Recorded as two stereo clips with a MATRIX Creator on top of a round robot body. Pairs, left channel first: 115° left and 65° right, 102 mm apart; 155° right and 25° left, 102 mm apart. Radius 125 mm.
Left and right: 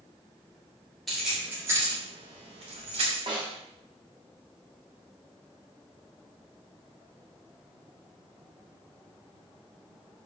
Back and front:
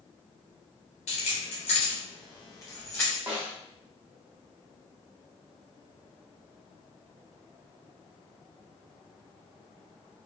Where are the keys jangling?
160° right, 1.3 m; by 3.2 s 90° right, 1.8 m.